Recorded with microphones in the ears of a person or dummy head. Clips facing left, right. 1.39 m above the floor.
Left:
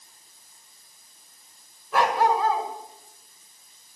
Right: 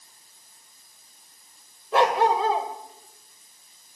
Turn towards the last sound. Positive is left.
turn(degrees=-20)  # may be behind; listen again after turning